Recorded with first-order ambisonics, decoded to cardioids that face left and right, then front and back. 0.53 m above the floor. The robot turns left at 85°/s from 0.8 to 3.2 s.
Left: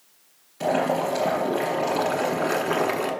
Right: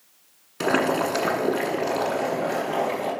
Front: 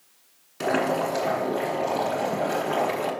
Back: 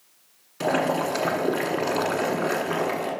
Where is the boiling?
80° right, 1.3 m; by 3.1 s 85° left, 1.3 m.